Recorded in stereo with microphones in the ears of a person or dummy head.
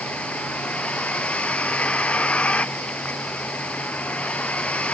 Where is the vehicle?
5° left (ahead or behind).